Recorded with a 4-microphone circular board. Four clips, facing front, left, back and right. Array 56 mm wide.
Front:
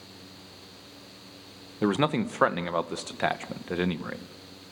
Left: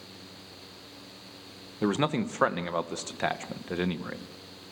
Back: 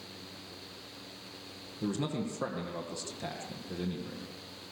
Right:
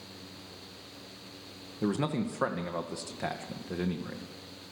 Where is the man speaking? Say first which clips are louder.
Left 3 dB, front 9 dB; 25° left, 1.7 m.